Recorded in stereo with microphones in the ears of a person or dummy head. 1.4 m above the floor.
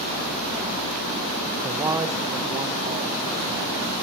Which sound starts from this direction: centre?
A man speaking, at 1.6 s.